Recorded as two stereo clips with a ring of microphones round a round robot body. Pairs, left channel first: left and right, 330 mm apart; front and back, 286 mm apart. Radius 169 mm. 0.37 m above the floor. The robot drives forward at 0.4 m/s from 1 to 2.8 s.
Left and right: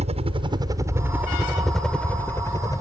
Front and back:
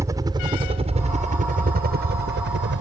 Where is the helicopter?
120° right; by 2.8 s 165° left.